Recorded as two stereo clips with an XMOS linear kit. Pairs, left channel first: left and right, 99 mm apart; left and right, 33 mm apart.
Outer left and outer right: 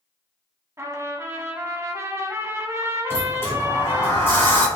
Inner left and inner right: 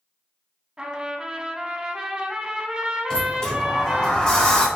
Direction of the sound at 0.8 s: 25° right (ahead or behind).